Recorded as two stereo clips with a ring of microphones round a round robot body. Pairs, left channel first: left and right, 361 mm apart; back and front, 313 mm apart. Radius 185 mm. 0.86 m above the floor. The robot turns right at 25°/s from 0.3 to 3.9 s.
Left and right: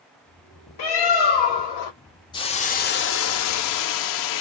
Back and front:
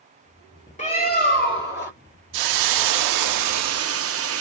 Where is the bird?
110° left, 2.5 m; by 1.9 s 140° left, 2.5 m.